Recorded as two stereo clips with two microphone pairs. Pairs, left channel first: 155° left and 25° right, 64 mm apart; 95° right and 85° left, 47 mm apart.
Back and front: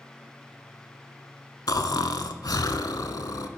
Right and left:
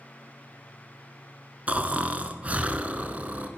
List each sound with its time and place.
1.7 s snoring: 140° left, 0.5 m